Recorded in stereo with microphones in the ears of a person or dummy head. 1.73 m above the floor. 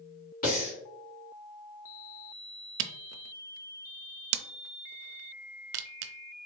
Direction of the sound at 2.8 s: 70° right (ahead or behind).